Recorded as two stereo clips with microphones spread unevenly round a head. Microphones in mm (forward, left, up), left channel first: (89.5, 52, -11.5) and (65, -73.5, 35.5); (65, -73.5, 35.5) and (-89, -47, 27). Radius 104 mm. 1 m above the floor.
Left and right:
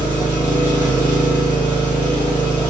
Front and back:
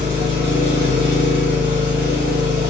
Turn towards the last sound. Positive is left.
turn(degrees=180)